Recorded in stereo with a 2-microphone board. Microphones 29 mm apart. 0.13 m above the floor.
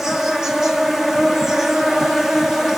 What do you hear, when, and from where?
0.0 s an insect: 20° right (ahead or behind), 0.7 m